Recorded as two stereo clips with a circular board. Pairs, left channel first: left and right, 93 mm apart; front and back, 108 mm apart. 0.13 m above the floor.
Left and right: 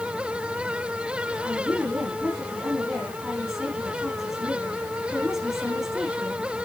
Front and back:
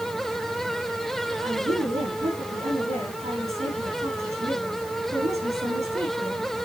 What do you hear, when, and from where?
1.4 s a woman speaking: 175° right, 8 m